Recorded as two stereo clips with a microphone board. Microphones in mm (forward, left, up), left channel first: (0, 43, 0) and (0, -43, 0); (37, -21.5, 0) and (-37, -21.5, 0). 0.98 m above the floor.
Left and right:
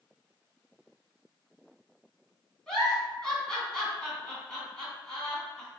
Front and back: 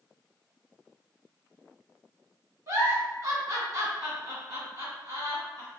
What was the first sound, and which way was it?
A giggle, 170° left.